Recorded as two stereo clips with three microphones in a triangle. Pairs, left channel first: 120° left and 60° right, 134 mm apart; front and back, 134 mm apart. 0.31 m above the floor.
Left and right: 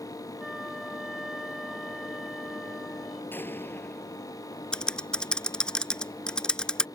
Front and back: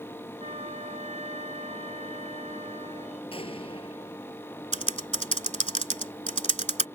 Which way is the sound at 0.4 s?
150° right.